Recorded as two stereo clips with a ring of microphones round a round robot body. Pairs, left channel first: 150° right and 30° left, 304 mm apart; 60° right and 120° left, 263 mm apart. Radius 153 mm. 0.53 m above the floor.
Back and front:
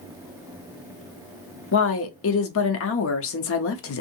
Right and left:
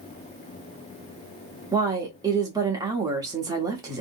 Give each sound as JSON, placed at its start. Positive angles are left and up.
{"t": 1.7, "sound": "a woman speaking", "azimuth_deg": -170, "distance_m": 0.8}